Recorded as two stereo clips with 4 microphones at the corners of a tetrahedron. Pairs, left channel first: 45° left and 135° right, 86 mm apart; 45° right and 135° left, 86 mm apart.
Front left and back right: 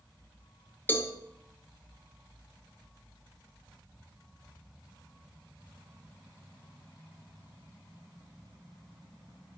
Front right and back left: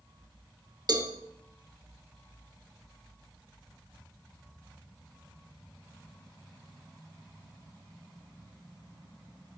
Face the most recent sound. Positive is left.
turn(degrees=110)